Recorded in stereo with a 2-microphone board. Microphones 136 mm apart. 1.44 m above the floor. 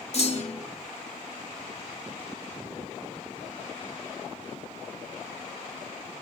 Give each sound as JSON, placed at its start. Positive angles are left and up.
{"t": 0.1, "sound": "a clunk", "side_deg": 50, "distance_m": 1.9}